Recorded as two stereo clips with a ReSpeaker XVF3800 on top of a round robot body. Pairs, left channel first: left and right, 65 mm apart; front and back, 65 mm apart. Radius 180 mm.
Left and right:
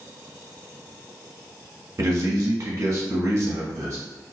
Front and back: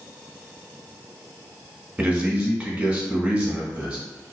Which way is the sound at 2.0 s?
115° right.